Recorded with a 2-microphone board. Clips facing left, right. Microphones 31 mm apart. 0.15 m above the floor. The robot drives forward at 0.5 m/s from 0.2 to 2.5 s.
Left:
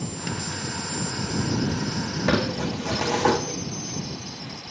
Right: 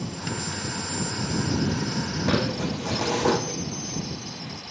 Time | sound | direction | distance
2.3 | crumpling | 55° left (ahead or behind) | 2.0 m